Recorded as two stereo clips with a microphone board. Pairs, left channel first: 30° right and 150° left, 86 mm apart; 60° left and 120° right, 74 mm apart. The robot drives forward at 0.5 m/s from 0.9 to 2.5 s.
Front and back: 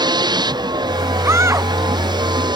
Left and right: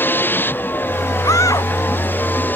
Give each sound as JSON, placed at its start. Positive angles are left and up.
{"t": 0.0, "sound": "a vehicle", "azimuth_deg": 120}
{"t": 1.2, "sound": "a scream", "azimuth_deg": 95}